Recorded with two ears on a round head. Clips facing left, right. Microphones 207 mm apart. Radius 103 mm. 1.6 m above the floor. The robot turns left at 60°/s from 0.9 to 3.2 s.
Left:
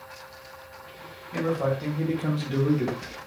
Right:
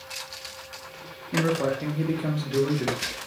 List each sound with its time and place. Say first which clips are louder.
1.3 s a man speaking: right 1 dB; 125° right, 0.8 m; by 3.0 s 135° left, 0.8 m